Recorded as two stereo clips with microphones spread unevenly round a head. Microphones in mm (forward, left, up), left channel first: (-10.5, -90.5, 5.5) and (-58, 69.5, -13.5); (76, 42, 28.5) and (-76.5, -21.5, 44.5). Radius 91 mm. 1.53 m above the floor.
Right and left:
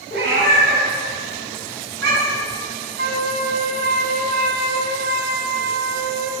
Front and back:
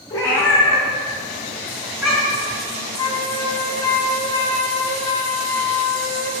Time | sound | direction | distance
0.1 | a cat meowing | 100° left | 2 m
3.0 | a flute | 95° left | 0.9 m